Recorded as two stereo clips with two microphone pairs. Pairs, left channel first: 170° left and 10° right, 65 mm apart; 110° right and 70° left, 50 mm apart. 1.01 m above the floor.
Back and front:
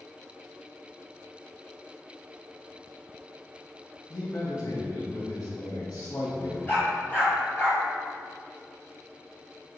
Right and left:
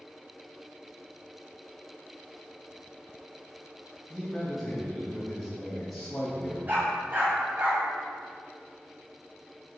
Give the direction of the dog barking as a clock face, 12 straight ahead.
8 o'clock.